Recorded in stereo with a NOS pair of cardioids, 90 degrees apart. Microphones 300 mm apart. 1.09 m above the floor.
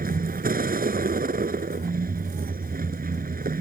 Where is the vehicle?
30° right.